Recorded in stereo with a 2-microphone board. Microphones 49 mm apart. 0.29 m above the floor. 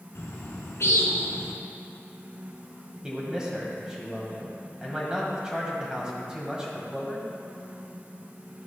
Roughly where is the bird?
Left.